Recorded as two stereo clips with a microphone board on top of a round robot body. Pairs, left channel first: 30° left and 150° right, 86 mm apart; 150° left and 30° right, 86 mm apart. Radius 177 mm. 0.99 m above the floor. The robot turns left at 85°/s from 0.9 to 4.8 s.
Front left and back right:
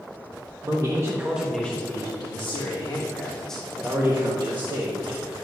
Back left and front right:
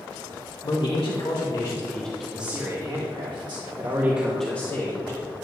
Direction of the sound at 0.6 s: 170° left.